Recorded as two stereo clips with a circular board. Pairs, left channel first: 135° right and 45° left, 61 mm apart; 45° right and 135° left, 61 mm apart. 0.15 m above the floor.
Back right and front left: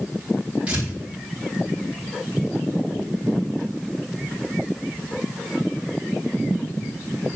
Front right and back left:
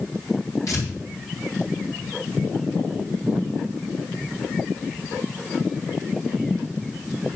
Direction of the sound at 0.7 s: 25° right.